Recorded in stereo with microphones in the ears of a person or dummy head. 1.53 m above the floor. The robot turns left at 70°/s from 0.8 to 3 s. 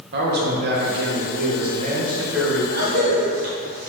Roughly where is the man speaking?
Ahead right.